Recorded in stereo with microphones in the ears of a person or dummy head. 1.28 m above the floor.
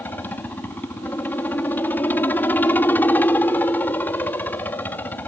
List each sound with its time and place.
0.0 s a helicopter: 10° left (ahead or behind)